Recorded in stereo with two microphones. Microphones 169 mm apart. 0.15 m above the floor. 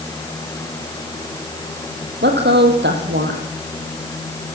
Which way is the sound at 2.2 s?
75° right (ahead or behind).